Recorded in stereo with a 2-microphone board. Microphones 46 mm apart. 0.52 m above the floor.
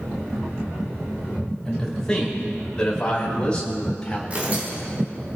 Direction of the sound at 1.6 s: 15° left (ahead or behind).